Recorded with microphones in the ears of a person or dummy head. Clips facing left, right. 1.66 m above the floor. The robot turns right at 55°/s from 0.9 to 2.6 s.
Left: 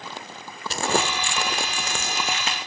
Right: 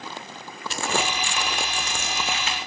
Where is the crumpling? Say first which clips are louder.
Left 3 dB; 35° left (ahead or behind), 1.7 m; by 2.6 s 20° left (ahead or behind), 1.7 m.